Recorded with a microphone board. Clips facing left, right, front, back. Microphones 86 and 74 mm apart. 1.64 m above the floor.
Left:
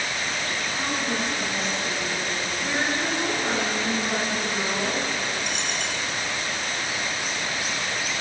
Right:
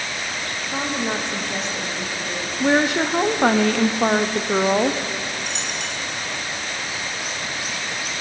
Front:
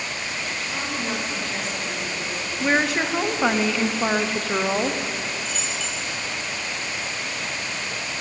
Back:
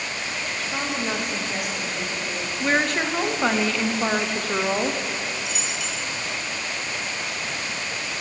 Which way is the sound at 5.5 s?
105° left.